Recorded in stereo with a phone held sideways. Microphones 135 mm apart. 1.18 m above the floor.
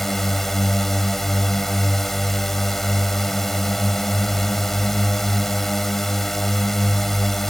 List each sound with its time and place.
0.0 s a drone: centre (ahead or behind)